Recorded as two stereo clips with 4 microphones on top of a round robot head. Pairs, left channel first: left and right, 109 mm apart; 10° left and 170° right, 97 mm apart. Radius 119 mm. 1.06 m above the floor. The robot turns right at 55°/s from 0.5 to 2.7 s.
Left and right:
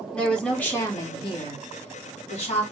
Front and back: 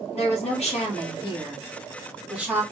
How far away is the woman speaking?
About 2 m.